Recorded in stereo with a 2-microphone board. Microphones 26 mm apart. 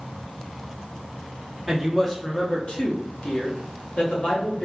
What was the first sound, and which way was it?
A woman speaking, centre (ahead or behind).